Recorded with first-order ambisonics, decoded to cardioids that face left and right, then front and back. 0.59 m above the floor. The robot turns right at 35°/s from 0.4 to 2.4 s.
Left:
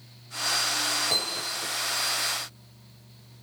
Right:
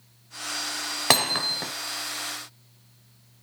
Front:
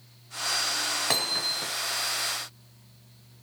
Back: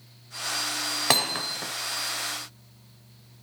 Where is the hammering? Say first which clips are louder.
Right 6 dB, back 4 dB; 115° right, 1.4 m; by 1.7 s 95° right, 1.4 m.